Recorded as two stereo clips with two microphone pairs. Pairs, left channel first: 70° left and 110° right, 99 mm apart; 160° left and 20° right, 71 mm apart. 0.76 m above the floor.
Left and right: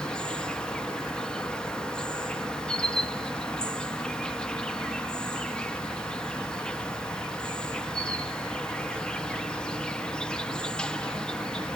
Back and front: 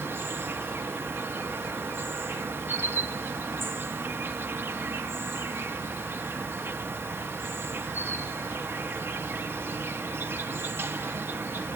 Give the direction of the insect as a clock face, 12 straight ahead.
12 o'clock.